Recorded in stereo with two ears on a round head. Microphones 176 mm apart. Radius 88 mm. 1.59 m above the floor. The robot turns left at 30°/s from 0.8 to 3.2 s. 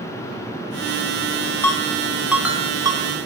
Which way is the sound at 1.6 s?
15° left (ahead or behind).